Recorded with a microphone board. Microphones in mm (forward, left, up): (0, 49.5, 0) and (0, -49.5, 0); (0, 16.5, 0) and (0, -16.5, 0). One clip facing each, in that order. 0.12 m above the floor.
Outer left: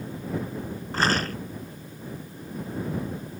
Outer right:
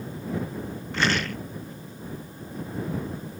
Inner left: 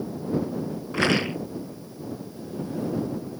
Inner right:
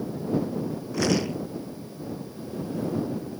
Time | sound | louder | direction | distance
0.9 | a rattle | outer left 1 dB, inner left 2 dB | 40° left (ahead or behind) | ?